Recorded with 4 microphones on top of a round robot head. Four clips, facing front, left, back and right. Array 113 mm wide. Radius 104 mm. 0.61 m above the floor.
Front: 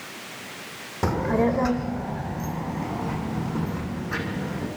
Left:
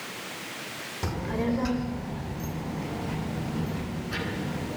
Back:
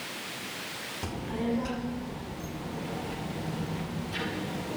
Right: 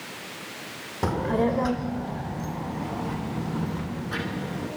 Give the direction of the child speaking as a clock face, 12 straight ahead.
1 o'clock.